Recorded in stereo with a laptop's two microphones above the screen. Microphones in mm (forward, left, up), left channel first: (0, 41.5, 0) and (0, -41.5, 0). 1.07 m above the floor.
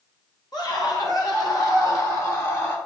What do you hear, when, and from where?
0.5 s a scream: 60° left (ahead or behind), 2.5 m; by 2.8 s 35° left (ahead or behind), 2.5 m